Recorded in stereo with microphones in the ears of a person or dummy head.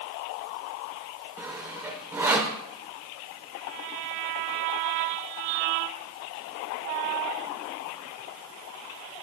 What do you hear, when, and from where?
1.4 s sawing: 10° right (ahead or behind), 1.4 m